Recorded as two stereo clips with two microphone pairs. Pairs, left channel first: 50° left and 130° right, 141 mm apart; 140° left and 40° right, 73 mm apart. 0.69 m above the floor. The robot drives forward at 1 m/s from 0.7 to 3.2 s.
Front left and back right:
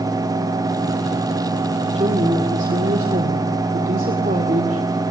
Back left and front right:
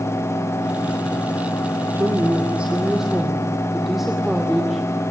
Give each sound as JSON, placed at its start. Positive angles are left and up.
{"t": 1.9, "sound": "a woman speaking", "azimuth_deg": -85, "distance_m": 2.0}